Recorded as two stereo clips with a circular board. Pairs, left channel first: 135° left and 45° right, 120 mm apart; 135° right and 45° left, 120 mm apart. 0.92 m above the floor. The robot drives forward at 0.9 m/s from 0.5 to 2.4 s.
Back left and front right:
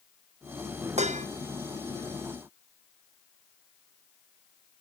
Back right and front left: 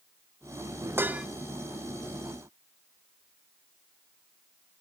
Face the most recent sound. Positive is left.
turn(degrees=-155)